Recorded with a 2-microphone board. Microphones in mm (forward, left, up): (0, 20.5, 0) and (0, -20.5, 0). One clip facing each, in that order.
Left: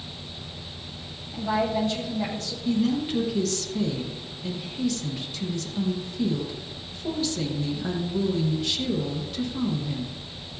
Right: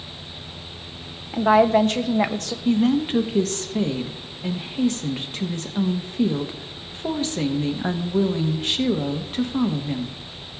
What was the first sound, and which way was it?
A woman speaking, 65° right (ahead or behind).